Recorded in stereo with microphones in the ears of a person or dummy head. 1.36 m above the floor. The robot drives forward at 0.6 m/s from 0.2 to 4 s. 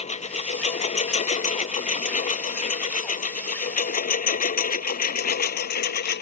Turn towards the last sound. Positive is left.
turn(degrees=60)  # may be behind; listen again after turning